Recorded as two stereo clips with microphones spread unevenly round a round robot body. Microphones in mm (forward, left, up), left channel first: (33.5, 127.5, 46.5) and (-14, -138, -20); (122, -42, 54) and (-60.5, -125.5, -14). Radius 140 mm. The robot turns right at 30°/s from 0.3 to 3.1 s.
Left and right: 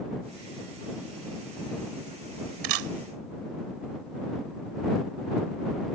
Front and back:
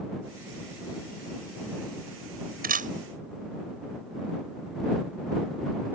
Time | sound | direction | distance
2.6 | a camera shutter | 105° right | ?